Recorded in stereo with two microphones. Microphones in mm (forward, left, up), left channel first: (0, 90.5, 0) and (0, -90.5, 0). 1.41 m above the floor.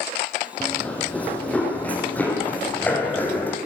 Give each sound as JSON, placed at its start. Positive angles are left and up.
{"t": 0.6, "sound": "running footsteps", "side_deg": 5, "distance_m": 3.0}